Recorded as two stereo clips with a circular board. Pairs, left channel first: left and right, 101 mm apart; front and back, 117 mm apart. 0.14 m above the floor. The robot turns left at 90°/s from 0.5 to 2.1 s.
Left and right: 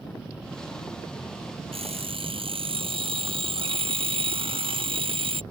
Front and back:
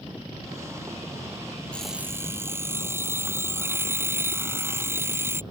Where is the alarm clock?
80° right; by 5.4 s 110° right.